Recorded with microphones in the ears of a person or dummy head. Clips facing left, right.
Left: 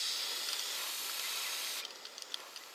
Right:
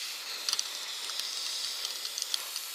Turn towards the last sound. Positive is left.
turn(degrees=-65)  # may be behind; listen again after turning